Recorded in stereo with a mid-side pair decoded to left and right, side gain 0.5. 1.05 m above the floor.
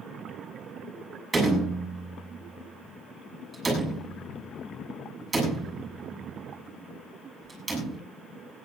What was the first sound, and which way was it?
A door slam, 30° right.